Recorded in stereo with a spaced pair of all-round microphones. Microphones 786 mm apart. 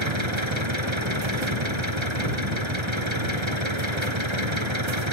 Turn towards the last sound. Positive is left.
turn(degrees=-35)  # may be behind; listen again after turning